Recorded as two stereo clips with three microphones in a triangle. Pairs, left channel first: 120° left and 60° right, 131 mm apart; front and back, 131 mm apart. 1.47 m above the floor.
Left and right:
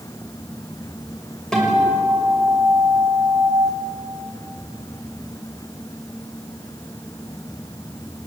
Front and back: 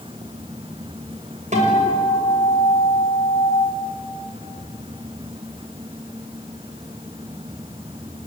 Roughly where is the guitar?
Behind right.